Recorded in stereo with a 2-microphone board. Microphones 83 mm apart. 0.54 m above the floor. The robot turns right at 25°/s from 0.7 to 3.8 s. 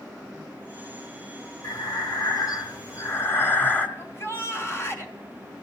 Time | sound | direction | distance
1.6 | breathing | 105° left | 1.8 m
4.0 | a shout | 35° left (ahead or behind) | 4 m